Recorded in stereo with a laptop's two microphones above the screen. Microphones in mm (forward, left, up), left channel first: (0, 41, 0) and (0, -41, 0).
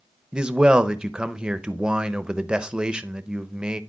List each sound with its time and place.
0.3 s a man speaking: 10° right (ahead or behind), 0.6 m